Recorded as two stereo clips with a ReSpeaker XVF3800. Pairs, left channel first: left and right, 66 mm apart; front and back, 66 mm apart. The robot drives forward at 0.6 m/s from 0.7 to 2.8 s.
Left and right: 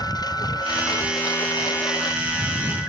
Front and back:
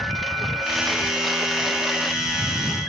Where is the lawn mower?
90° left.